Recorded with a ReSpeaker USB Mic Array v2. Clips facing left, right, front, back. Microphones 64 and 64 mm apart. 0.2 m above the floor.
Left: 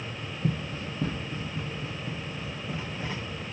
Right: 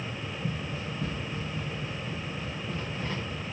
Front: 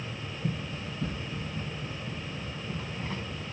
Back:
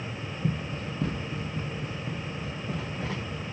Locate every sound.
0.4 s running footsteps: 125° left, 1.3 m; by 3.4 s 165° left, 5 m